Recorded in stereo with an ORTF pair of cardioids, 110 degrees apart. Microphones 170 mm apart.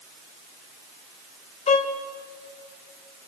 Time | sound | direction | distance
1.7 | a violin | 40° left | 3.5 m